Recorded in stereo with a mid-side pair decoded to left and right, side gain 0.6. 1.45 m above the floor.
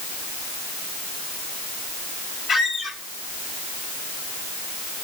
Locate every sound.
2.5 s a squeak: 40° left, 1.2 m